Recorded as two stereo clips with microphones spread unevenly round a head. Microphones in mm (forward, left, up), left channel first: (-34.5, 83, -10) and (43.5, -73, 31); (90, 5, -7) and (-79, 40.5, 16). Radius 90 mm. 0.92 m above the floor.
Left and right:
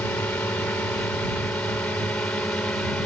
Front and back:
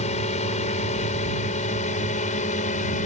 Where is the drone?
35° left.